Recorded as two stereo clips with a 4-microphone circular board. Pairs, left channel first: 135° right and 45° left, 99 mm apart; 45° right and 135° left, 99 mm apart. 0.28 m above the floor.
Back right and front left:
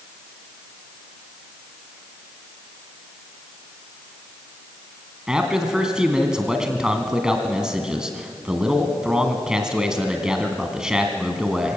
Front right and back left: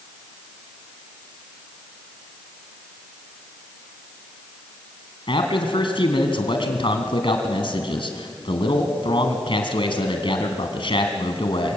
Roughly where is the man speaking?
Ahead right.